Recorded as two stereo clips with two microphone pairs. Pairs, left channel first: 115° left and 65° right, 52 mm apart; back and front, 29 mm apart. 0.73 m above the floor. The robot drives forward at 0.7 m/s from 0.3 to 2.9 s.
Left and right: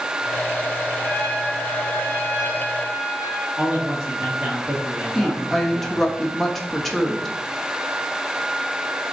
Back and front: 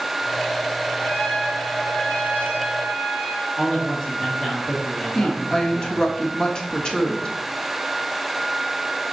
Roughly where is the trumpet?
Behind.